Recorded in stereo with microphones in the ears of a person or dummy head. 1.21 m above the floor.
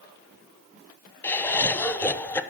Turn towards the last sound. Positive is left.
turn(degrees=15)  # may be behind; listen again after turning